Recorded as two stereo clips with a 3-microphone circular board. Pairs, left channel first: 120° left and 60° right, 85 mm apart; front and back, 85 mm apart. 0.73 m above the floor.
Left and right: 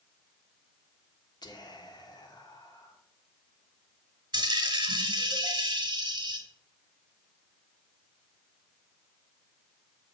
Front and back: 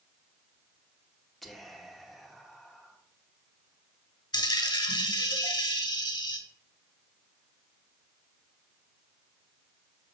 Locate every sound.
1.4 s whispering: 85° left, 1.3 m
4.3 s a dropped coin: 25° right, 1.3 m